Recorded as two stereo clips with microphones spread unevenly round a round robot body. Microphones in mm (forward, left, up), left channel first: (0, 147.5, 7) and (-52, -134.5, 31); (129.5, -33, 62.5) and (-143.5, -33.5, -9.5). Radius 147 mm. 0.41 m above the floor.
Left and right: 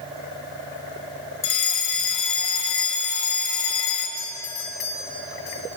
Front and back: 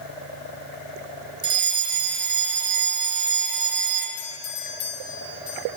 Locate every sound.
1.4 s a fire alarm: 120° left, 4 m
4.2 s a doorbell: 40° left, 5.5 m